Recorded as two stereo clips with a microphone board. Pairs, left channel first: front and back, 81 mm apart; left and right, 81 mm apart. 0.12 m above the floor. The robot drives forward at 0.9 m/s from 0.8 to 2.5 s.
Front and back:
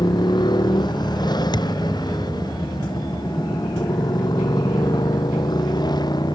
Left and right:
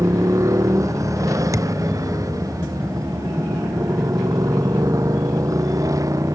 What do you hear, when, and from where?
0.0 s a motorcycle: 35° right; by 6.4 s 40° right
1.5 s a thud: 35° right